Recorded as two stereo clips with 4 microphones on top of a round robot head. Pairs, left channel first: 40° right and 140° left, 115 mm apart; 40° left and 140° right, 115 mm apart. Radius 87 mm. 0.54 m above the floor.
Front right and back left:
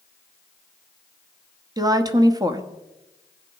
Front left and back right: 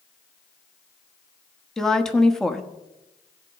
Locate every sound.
1.8 s a woman speaking: 125° left, 1.1 m